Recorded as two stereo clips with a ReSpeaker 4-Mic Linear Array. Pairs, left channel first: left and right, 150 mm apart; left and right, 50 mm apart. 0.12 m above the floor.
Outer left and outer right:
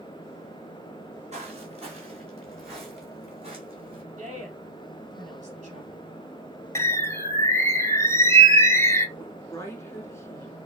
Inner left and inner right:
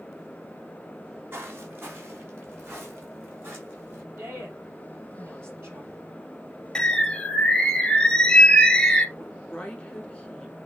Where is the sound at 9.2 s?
20° left (ahead or behind), 1.1 m.